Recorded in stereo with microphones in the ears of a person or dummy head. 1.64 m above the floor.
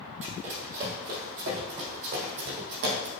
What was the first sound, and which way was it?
Running footsteps, 40° right (ahead or behind).